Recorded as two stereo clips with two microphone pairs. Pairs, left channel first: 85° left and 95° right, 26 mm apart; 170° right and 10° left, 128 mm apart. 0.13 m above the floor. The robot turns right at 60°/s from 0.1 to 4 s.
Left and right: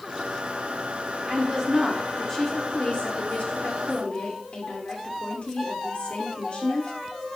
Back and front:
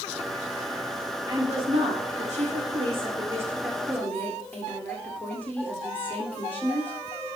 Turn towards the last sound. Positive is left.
turn(degrees=115)